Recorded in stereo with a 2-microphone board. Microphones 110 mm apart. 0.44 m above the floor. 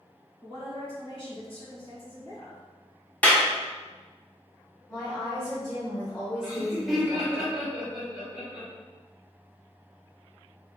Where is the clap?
15° left (ahead or behind), 0.6 m.